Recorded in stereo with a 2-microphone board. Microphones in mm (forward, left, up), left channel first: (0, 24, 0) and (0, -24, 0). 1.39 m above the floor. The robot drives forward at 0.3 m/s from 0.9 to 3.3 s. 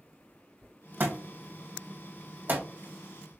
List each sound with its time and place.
1.0 s a thud: 45° right (ahead or behind), 2 m; by 2.6 s 40° right (ahead or behind), 2.5 m